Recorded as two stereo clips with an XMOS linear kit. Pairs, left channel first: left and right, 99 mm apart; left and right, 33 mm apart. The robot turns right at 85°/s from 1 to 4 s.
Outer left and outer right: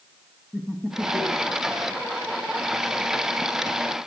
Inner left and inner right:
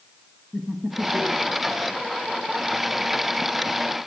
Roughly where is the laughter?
Centre.